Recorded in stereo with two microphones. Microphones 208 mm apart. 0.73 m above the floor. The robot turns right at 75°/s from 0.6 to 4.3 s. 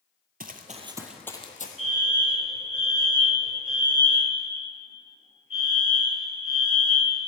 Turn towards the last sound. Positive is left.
turn(degrees=-140)